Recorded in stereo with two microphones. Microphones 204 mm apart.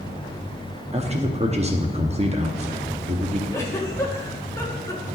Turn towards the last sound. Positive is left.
turn(degrees=15)  # may be behind; listen again after turning